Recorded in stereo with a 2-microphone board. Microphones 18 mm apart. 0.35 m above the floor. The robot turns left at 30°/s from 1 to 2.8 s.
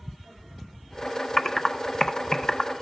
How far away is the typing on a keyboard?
About 0.5 m.